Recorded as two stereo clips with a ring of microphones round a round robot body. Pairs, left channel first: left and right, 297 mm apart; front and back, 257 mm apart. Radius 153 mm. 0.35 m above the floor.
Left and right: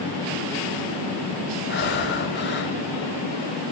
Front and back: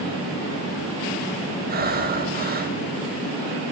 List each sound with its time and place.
1.7 s breathing: 135° left, 2 m